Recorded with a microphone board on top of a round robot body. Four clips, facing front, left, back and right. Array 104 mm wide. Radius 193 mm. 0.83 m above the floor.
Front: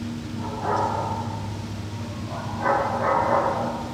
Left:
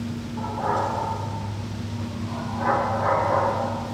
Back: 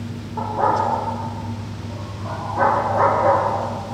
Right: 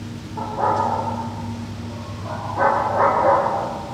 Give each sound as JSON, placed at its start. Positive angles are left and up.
{"t": 0.4, "sound": "a dog barking", "azimuth_deg": -155, "distance_m": 8.0}